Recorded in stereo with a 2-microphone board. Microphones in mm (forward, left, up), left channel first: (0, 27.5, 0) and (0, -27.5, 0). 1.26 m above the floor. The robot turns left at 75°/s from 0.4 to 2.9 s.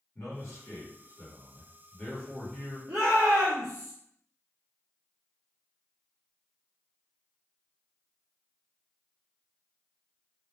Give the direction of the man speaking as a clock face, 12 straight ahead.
8 o'clock.